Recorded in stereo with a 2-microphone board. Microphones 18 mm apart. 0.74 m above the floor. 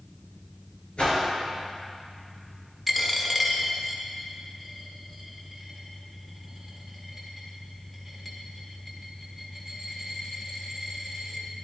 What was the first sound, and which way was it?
A whoosh, 65° left (ahead or behind).